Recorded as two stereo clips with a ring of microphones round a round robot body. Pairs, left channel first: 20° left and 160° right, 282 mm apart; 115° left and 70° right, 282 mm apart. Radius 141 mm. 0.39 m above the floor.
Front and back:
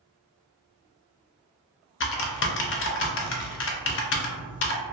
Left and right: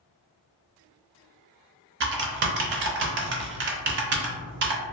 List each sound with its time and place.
2.0 s typing on a keyboard: 20° right, 0.5 m